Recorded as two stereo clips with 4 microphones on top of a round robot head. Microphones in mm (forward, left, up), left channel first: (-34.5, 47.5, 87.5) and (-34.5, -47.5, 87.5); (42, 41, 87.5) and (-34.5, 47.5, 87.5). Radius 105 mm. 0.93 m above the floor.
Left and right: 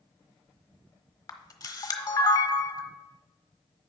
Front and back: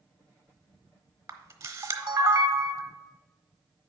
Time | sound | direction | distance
1.3 | a camera shutter | 130° left | 1.1 m